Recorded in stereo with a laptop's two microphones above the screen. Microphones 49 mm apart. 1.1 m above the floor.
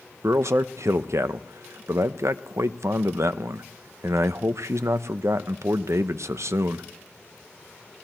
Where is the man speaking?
70° right (ahead or behind), 0.7 m.